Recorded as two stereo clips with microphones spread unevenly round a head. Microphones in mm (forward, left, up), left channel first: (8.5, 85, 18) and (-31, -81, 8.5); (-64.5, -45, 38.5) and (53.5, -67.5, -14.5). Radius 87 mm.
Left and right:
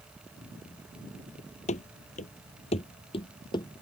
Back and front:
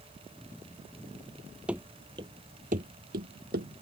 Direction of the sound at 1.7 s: 95° left.